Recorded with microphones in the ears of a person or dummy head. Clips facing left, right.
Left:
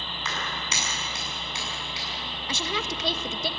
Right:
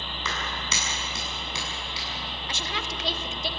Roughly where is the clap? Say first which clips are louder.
Even; right.